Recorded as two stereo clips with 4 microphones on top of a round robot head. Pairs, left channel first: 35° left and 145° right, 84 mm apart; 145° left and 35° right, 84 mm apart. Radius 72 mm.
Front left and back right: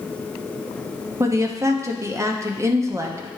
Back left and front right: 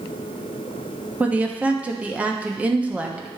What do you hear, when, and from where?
1.2 s a woman speaking: 105° right, 0.9 m